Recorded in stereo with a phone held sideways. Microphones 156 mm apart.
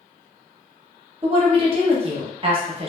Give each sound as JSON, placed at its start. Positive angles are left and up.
{"t": 1.2, "sound": "a woman speaking", "side_deg": -35, "distance_m": 0.8}